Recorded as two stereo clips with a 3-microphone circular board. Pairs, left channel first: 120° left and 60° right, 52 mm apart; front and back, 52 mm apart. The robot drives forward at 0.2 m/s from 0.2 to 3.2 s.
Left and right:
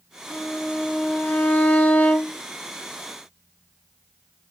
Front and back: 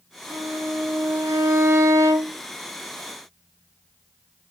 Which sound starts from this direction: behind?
A violin, at 0.3 s.